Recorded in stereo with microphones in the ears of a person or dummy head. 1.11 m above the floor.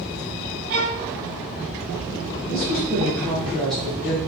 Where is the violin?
40° right (ahead or behind), 0.5 m.